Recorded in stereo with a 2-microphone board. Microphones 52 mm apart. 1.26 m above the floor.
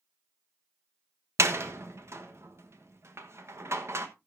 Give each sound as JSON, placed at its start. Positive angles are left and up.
{"t": 1.4, "sound": "a door slam", "side_deg": -65, "distance_m": 1.2}